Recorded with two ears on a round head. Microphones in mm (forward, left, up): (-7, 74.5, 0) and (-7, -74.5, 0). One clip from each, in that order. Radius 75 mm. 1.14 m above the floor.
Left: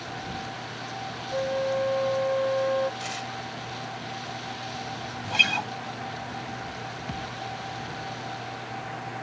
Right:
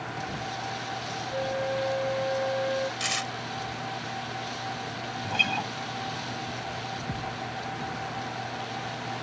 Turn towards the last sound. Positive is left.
turn(degrees=75)  # may be behind; listen again after turning